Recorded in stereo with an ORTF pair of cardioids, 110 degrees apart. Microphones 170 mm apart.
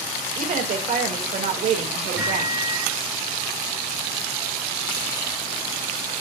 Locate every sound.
0.4 s a woman speaking: 55° right, 2.5 m
2.2 s a microwave: 10° right, 5 m